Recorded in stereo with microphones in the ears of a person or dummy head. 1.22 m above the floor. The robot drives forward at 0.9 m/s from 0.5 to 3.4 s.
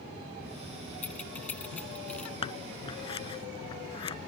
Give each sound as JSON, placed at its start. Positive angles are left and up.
{"t": 1.0, "sound": "keys jangling", "side_deg": 5}
{"t": 2.4, "sound": "scissors", "side_deg": 30}